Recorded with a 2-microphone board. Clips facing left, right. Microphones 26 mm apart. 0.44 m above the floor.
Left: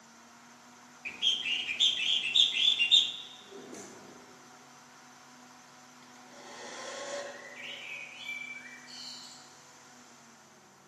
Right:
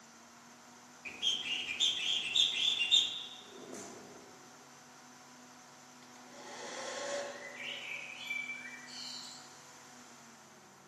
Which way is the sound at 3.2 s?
35° left (ahead or behind).